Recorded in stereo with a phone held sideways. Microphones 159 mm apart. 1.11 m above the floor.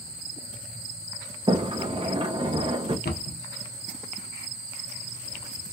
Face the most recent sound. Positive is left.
turn(degrees=90)